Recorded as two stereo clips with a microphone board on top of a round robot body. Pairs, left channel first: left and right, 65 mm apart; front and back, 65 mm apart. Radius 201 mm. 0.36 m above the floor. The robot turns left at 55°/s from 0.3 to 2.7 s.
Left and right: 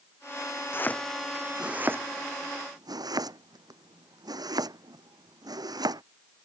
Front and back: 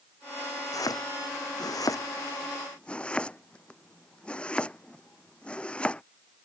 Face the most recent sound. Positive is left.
turn(degrees=-75)